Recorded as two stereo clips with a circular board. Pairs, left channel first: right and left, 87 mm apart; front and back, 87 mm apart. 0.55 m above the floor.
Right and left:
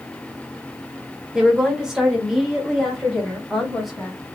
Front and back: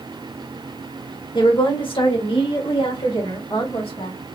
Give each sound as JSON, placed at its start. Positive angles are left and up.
{"t": 1.4, "sound": "a woman speaking", "azimuth_deg": 10, "distance_m": 1.6}